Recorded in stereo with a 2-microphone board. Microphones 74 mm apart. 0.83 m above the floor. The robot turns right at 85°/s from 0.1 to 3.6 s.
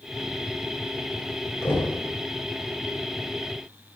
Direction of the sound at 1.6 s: 40° left (ahead or behind).